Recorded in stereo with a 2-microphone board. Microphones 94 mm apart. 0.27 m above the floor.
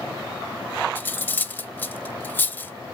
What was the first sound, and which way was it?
Cutlery clinking, 20° left (ahead or behind).